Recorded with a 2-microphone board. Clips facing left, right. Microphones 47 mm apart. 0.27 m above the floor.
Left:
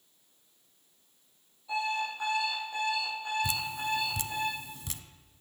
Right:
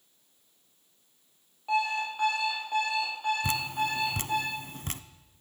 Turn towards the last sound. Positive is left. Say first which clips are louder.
# right 3 dB
turn(degrees=-50)  # may be behind; listen again after turning